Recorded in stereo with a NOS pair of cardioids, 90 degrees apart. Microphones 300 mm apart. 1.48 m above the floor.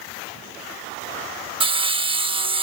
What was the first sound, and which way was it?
Sawing, 15° right.